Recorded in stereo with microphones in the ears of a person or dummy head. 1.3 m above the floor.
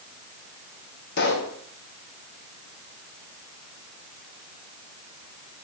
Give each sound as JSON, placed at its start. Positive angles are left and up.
{"t": 1.2, "sound": "a pop", "side_deg": 60, "distance_m": 1.7}